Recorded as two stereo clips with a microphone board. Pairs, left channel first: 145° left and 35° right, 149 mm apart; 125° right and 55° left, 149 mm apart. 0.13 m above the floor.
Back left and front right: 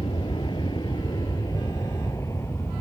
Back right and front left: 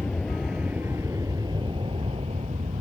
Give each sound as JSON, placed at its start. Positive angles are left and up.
{"t": 0.0, "sound": "an aircraft", "azimuth_deg": 160}